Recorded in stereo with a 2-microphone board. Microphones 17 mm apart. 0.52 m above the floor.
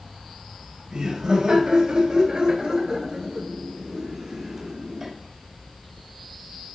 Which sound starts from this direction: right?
Laughter, at 0.9 s.